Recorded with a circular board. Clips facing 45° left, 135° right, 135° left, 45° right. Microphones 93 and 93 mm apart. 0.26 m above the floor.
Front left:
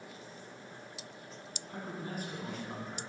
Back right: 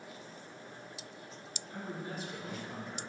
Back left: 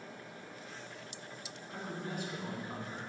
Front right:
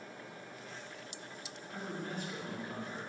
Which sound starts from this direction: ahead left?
A man speaking, at 1.7 s.